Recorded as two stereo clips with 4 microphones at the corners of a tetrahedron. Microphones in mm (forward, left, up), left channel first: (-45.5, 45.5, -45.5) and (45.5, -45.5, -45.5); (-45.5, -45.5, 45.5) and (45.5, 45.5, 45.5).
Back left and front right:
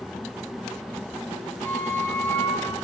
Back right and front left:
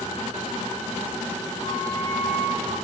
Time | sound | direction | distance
1.6 | a flute | 60° left | 5.5 m